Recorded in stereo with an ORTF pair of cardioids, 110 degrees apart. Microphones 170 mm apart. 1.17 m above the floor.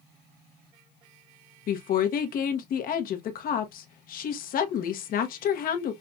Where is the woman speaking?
60° left, 1.0 m.